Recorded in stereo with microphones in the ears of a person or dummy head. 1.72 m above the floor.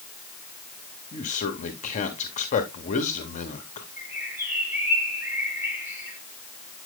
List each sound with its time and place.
1.1 s a man speaking: 35° left (ahead or behind), 1.4 m
4.0 s a bird: 10° right (ahead or behind), 7.5 m